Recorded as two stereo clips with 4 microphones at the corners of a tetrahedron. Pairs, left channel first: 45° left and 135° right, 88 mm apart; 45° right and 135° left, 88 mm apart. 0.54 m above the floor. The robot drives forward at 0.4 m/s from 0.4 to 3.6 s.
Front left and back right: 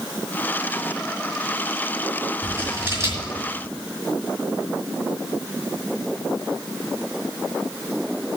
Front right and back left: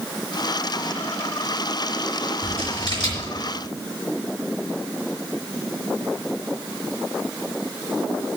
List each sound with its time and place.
2.4 s scissors: 75° right, 4.5 m; by 3.3 s 80° right, 4.5 m